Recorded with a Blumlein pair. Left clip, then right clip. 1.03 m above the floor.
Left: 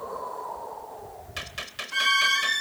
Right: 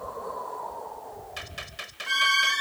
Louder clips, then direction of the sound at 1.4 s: Left 5 dB; 15° left.